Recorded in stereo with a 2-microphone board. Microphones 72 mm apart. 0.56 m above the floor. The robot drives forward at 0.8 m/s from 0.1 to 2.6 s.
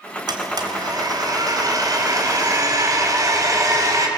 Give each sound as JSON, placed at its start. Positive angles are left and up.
{"t": 0.3, "sound": "a blender", "side_deg": -70, "distance_m": 3.5}